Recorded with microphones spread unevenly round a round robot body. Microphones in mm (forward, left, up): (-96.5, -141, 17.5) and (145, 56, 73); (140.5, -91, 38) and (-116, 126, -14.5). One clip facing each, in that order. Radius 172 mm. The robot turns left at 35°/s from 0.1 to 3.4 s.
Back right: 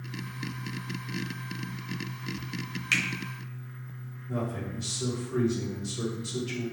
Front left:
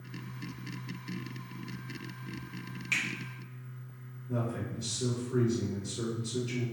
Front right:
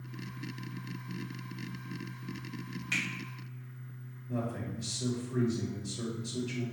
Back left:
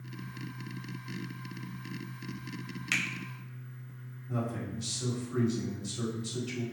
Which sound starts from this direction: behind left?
A man speaking, at 4.3 s.